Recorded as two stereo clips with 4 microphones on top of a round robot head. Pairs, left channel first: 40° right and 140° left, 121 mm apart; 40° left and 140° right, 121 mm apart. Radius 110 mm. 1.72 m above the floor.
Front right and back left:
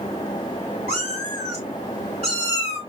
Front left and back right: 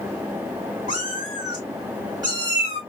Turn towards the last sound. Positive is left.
turn(degrees=170)